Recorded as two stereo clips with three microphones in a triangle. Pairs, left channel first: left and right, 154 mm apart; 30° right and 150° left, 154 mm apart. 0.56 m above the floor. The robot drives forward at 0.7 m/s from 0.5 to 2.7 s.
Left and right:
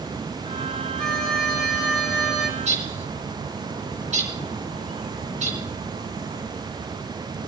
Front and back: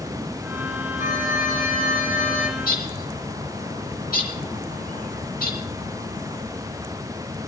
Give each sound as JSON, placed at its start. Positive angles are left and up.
{"t": 1.0, "sound": "a violin", "azimuth_deg": 0, "distance_m": 6.0}
{"t": 2.6, "sound": "a bird", "azimuth_deg": -50, "distance_m": 3.5}